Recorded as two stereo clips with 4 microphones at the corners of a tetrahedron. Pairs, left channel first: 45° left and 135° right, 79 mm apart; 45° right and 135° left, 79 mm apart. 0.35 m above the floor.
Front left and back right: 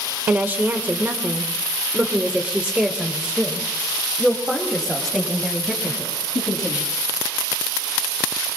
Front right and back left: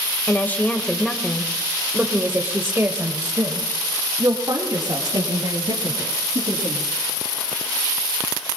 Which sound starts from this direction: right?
A woman speaking, at 0.3 s.